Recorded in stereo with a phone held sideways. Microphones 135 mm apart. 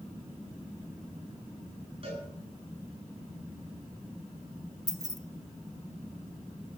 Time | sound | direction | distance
2.0 | a cowbell | 45° right (ahead or behind) | 9.5 m
4.9 | keys jangling | 30° right (ahead or behind) | 1.2 m